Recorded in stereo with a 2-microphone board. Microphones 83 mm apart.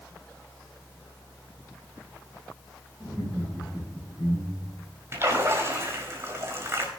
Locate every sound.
3.0 s laughter: 25° right (ahead or behind), 7.5 m; by 4.8 s 20° right (ahead or behind), 9.5 m
5.1 s a splash: 35° right (ahead or behind), 4 m